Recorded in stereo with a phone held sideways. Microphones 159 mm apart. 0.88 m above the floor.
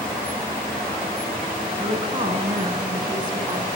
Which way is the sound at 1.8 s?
30° right (ahead or behind).